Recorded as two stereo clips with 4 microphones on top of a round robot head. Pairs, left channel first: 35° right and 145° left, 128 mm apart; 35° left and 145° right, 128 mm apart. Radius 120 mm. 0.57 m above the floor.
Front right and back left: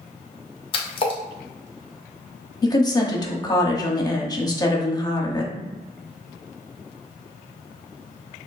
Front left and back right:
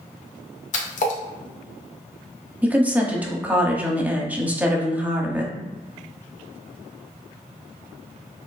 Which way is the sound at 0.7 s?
10° left.